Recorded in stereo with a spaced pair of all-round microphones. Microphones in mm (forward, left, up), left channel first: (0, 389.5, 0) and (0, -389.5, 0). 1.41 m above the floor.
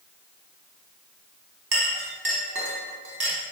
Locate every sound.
1.7 s a clink: 30° right (ahead or behind), 0.7 m